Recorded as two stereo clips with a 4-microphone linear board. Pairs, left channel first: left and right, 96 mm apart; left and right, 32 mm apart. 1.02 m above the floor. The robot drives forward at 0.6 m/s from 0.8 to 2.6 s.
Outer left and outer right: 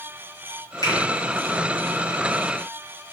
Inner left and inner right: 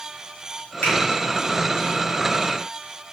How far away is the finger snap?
About 3 m.